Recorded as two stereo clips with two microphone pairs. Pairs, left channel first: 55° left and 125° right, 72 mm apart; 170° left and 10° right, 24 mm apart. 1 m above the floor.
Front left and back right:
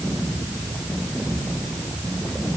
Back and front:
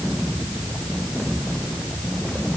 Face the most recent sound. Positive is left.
No sound to turn to.